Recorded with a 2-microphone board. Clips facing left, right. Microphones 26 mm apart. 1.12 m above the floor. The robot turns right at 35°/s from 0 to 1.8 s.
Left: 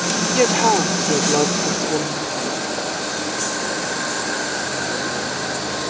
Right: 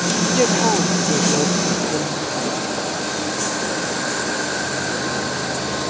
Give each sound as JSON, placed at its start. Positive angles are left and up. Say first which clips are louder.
{"t": 0.3, "sound": "a woman speaking", "louder": "left 2 dB", "azimuth_deg": 15}